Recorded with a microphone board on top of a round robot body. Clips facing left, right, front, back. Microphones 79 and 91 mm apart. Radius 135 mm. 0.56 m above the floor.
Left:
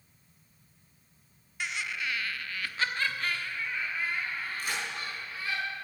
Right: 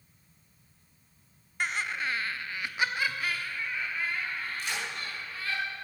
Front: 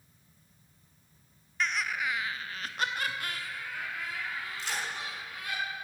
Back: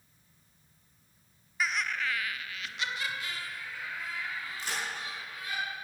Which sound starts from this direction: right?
Laughter, at 1.6 s.